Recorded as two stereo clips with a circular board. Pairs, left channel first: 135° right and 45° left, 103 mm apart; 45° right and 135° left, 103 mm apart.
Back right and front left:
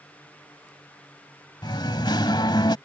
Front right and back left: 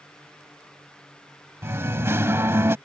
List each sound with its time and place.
1.6 s singing: 165° right